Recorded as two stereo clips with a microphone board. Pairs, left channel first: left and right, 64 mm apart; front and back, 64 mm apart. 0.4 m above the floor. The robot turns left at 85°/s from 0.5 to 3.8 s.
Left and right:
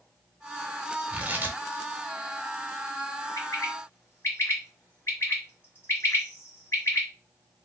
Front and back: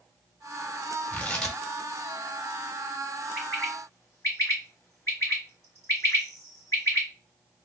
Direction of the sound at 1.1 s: 40° right.